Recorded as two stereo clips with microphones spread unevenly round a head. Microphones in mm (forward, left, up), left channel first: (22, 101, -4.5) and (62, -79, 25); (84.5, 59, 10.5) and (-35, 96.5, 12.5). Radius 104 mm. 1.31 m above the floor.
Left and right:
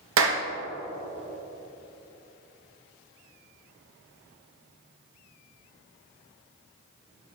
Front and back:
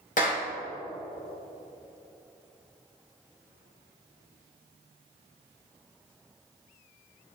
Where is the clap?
70° right, 1.7 m.